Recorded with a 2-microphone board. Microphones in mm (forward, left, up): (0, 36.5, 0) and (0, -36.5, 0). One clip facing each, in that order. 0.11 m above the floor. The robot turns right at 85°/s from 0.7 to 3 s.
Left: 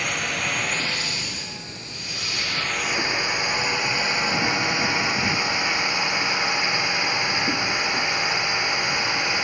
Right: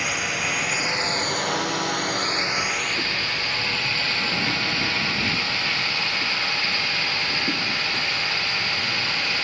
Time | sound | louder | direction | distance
0.0 | a drone | even | straight behind | ?